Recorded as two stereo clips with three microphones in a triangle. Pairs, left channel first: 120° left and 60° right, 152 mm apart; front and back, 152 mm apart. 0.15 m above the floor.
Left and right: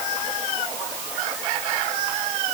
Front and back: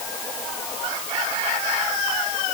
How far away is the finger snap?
I don't hear a finger snap.